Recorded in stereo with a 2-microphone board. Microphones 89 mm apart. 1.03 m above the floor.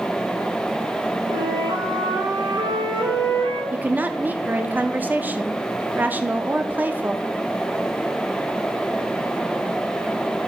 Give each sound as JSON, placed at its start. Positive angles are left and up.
{"t": 1.3, "sound": "a flute", "side_deg": -80, "distance_m": 3.5}
{"t": 3.7, "sound": "a woman speaking", "side_deg": -20, "distance_m": 0.6}